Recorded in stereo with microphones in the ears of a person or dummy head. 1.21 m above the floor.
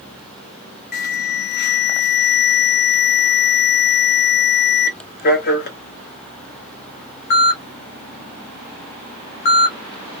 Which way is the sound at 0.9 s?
45° left (ahead or behind).